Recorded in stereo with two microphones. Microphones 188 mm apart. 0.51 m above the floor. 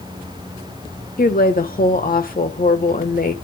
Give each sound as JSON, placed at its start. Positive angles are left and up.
{"t": 1.2, "sound": "a woman speaking", "side_deg": 55, "distance_m": 1.4}